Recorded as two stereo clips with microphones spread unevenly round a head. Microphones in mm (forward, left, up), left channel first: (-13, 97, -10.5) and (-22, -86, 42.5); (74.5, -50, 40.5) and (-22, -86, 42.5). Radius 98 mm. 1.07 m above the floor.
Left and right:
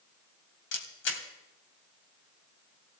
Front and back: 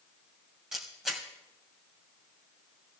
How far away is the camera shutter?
About 2.5 m.